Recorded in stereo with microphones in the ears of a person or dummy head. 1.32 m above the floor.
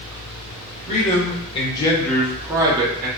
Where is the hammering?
No hammering in this recording.